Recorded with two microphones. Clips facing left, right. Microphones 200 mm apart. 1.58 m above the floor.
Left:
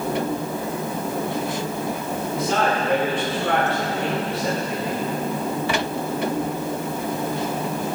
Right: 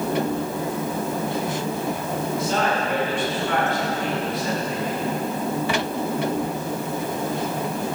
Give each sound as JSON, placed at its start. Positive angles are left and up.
{"t": 2.3, "sound": "a man speaking", "side_deg": 80, "distance_m": 4.0}